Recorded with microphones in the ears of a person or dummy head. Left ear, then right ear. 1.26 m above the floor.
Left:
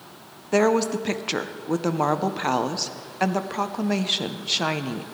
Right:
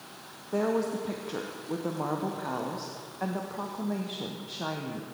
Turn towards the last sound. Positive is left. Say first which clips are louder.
# left 8 dB
turn(degrees=60)  # may be behind; listen again after turning